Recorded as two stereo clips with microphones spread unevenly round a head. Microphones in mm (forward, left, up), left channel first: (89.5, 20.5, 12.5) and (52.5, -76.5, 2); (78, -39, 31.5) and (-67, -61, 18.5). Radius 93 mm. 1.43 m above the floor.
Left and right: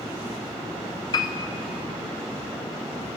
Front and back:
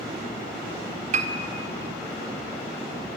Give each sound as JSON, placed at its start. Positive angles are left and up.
{"t": 1.1, "sound": "a piano", "azimuth_deg": 140, "distance_m": 0.9}